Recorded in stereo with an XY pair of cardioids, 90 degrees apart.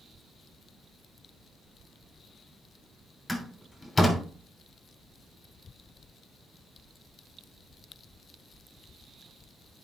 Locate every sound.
3.3 s a door slam: 25° left, 3 m